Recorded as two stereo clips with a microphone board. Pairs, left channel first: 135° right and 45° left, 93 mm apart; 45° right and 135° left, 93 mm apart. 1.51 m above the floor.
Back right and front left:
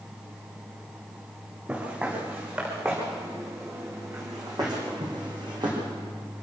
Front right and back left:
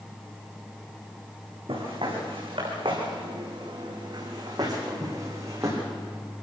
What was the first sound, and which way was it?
Footsteps, 120° left.